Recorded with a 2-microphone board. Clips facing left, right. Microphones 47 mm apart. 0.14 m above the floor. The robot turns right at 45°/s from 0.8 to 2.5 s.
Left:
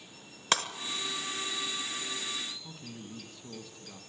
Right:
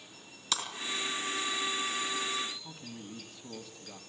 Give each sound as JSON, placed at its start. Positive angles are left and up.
{"t": 0.5, "sound": "breaking glass", "side_deg": 50, "distance_m": 1.0}
{"t": 2.6, "sound": "a man speaking", "side_deg": 0, "distance_m": 1.1}